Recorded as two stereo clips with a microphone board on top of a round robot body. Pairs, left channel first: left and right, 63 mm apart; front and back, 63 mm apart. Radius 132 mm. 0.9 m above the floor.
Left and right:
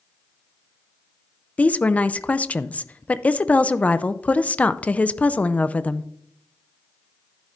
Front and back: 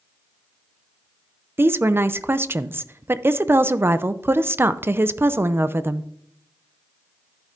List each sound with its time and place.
1.6 s a woman speaking: 150° left, 0.6 m